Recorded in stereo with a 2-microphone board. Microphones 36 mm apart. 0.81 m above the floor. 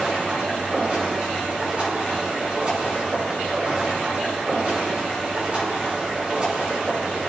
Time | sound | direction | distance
0.0 | running water | 35° right (ahead or behind) | 5 m